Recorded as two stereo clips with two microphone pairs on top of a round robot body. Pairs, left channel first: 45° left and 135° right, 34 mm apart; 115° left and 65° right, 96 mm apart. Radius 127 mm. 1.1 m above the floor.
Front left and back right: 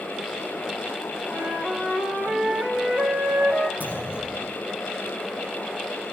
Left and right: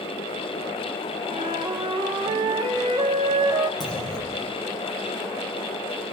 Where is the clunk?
155° right, 8 m.